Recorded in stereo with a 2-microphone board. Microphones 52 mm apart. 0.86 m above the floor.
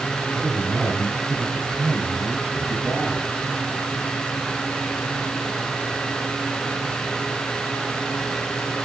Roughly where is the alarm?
I don't hear an alarm.